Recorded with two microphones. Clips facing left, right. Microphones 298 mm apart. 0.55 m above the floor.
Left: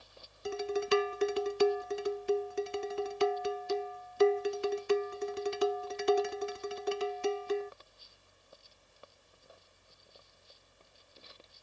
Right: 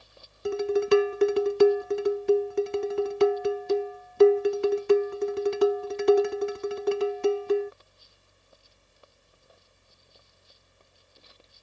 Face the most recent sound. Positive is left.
turn(degrees=-60)  # may be behind; listen again after turning